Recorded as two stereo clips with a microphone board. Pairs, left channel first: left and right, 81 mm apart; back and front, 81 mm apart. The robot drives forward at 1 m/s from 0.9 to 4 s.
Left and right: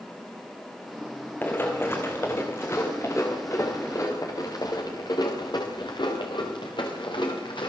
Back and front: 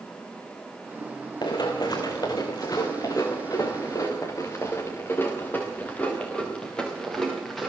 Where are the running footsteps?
150° left, 3.5 m; by 7.7 s 90° left, 6 m.